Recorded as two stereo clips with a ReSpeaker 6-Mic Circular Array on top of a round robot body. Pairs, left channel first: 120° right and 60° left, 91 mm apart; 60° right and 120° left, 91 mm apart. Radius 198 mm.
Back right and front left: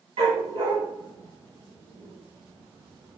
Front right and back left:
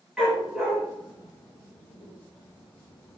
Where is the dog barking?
35° left, 4 m; by 3.2 s 10° left, 1.8 m.